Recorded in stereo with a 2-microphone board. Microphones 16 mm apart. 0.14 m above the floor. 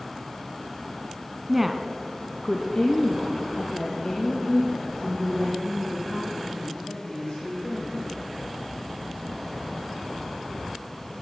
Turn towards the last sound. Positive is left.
turn(degrees=80)